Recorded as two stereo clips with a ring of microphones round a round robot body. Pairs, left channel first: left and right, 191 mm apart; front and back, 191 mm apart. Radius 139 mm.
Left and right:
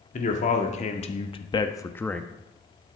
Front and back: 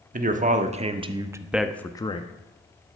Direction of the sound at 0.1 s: 140° left.